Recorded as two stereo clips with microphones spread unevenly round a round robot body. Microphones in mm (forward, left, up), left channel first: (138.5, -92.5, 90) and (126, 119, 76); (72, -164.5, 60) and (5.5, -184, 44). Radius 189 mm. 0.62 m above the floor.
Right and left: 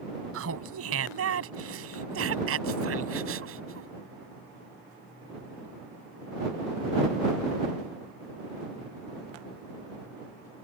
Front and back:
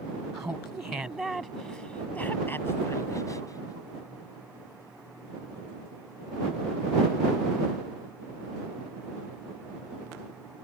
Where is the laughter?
110° left; by 3.9 s 85° left.